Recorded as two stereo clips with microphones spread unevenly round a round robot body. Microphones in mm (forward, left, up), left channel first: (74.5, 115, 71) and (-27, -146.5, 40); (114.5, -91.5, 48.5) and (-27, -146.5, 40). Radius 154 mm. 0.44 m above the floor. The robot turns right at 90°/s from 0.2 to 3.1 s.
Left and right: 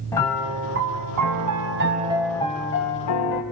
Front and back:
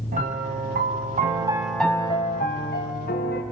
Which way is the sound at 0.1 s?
150° left.